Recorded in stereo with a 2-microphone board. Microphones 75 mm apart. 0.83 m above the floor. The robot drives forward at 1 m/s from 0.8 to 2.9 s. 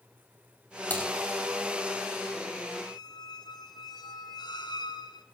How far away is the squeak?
About 2.5 m.